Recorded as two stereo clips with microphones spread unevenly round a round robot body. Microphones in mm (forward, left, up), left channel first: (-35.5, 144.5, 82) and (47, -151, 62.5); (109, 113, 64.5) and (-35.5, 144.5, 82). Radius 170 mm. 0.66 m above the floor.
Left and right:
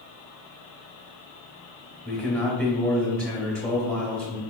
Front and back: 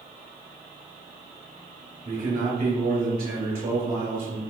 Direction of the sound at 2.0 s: 165° right.